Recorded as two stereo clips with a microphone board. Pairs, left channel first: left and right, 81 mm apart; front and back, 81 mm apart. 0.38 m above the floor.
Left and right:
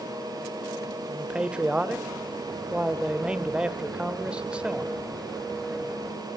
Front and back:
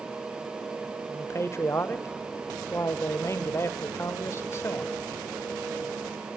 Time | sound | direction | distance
1.1 | a man speaking | 20° right | 1.1 m